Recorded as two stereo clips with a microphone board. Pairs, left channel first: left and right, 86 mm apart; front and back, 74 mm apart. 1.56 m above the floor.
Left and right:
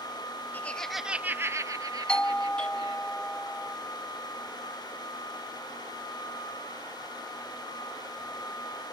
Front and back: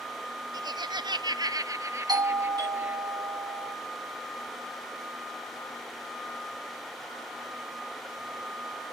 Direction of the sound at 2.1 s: 170° left.